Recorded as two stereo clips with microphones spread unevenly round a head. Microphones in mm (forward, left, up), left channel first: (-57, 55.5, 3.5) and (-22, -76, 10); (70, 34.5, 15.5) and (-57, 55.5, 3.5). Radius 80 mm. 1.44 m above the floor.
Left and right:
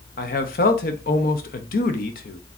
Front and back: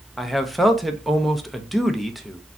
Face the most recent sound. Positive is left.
turn(degrees=80)